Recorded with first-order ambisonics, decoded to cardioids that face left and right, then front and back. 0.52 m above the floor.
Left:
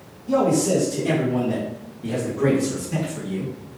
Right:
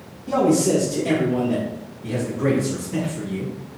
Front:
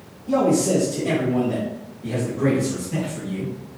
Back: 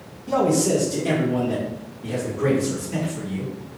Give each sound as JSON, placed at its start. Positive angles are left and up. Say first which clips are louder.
{"t": 0.3, "sound": "a man speaking", "louder": "right 1 dB, front 1 dB", "azimuth_deg": -130, "distance_m": 1.0}